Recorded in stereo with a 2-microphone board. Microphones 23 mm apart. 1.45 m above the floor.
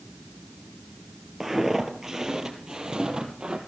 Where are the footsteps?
10° right (ahead or behind), 1.7 m; by 3.6 s 35° right (ahead or behind), 2.5 m.